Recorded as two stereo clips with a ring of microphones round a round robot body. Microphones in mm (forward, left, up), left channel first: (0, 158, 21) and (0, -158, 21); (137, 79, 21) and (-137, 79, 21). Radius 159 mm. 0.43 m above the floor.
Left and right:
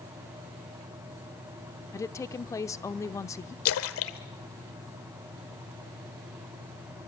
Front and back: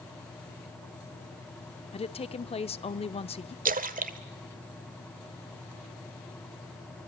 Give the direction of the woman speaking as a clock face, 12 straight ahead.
11 o'clock.